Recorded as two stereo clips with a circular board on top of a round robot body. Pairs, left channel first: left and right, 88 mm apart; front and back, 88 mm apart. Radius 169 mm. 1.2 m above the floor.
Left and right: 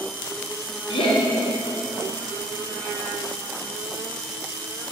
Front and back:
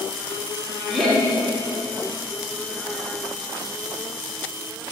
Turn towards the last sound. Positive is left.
turn(degrees=85)